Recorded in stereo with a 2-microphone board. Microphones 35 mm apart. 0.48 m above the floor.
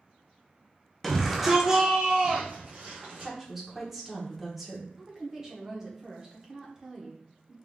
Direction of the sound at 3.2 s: 5° right (ahead or behind).